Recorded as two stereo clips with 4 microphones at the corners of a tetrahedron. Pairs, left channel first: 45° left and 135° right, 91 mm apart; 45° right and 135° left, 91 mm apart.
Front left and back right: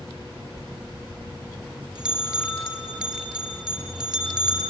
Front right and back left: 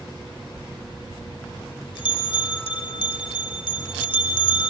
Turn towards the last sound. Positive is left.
turn(degrees=-55)